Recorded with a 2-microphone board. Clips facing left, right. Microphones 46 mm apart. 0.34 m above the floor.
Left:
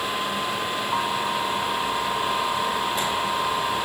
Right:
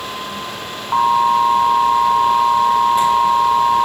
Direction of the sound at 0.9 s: 45° right (ahead or behind).